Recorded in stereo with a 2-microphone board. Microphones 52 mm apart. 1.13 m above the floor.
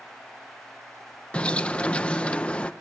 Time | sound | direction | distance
1.3 | a bird | 20° left (ahead or behind) | 0.9 m